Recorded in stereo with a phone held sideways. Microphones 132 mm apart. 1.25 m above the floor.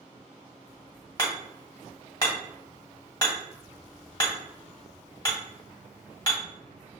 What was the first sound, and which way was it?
Hammering, 25° left (ahead or behind).